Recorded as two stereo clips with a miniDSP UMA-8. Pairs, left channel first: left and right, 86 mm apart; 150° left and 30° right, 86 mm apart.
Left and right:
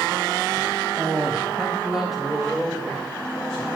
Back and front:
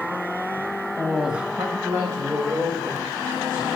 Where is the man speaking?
155° right, 0.8 m; by 3.7 s straight ahead, 3 m.